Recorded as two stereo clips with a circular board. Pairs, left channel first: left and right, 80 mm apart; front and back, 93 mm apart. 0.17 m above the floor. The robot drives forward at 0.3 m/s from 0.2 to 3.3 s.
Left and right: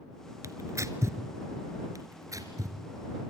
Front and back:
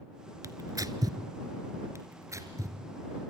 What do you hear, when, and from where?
0.4 s tearing paper: 130° right, 1.3 m; by 1.2 s 140° right, 1.4 m
1.9 s tearing paper: 125° right, 3 m; by 2.8 s 130° right, 3.5 m